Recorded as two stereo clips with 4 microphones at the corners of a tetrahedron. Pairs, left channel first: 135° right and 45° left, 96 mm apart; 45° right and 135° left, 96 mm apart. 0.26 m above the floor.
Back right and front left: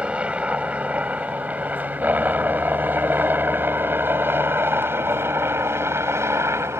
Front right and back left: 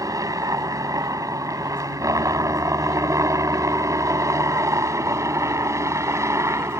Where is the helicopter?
115° left; by 6.8 s 90° left.